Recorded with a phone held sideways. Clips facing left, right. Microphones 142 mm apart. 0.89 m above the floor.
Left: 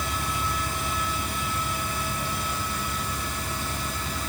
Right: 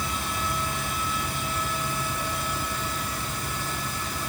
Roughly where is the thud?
I don't hear a thud.